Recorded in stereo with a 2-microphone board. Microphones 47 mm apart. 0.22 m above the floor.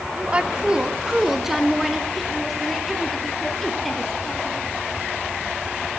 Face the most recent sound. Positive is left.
turn(degrees=5)  # may be behind; listen again after turning